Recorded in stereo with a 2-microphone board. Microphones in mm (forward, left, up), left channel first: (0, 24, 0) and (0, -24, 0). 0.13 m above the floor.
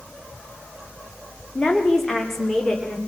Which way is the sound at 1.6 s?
10° left (ahead or behind).